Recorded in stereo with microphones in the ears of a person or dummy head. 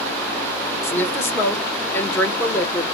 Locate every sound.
0.8 s a woman speaking: 15° left (ahead or behind), 1.0 m